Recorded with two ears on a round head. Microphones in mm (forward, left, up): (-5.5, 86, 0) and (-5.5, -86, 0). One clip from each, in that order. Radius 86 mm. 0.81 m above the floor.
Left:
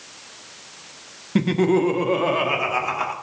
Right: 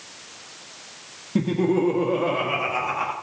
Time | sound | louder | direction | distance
1.4 | laughter | left 3 dB | 50° left (ahead or behind) | 1.1 m